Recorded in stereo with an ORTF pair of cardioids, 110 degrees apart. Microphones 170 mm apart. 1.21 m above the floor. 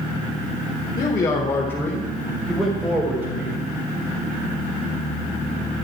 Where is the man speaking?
35° left, 3.5 m; by 3.6 s 20° right, 4.5 m.